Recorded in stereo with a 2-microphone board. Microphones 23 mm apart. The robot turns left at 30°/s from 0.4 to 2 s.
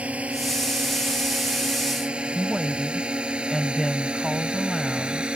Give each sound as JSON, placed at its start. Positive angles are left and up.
{"t": 0.0, "sound": "a drone", "side_deg": -70}
{"t": 2.4, "sound": "a woman speaking", "side_deg": -5}